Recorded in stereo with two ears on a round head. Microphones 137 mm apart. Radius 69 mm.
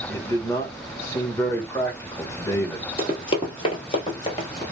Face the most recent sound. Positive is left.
turn(degrees=30)  # may be behind; listen again after turning